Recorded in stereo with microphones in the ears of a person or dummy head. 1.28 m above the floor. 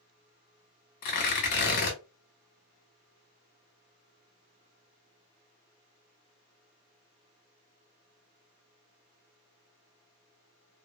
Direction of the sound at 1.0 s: 50° left (ahead or behind).